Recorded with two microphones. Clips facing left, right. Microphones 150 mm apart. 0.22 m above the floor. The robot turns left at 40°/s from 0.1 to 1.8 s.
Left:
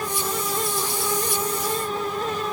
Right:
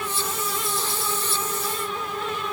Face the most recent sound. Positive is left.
No sound to turn to.